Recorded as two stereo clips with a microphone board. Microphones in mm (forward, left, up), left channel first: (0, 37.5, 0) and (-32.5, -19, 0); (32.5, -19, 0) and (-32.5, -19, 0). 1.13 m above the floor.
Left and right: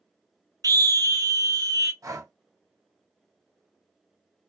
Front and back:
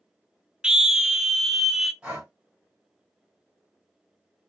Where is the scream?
100° right, 0.5 m; by 1.9 s 95° right, 1.3 m.